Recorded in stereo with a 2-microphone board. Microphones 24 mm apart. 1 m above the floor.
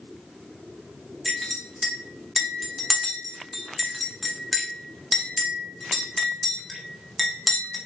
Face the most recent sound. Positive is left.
turn(degrees=0)  # may be behind; listen again after turning